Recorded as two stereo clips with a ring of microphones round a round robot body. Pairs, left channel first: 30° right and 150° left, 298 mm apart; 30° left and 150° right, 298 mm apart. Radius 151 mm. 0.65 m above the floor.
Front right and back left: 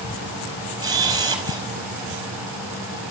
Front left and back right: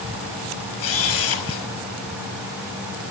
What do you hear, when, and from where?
0.8 s a camera shutter: 70° left, 4.5 m